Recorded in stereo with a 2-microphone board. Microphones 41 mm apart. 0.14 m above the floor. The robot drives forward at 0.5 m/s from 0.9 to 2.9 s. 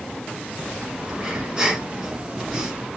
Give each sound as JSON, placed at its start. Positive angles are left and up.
{"t": 1.1, "sound": "breathing", "side_deg": -15, "distance_m": 1.2}